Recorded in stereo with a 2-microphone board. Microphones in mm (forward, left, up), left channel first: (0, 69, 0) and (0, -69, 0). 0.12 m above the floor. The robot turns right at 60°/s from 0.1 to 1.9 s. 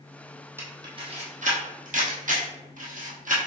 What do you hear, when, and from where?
0.6 s a camera shutter: 20° right (ahead or behind), 1.2 m; by 3.4 s 75° right (ahead or behind), 1.2 m